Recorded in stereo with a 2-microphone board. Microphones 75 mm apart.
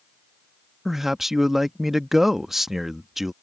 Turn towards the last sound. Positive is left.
turn(degrees=-5)  # may be behind; listen again after turning